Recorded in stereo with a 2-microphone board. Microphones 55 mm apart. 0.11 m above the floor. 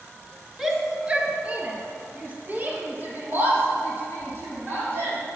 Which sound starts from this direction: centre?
A shout, at 0.6 s.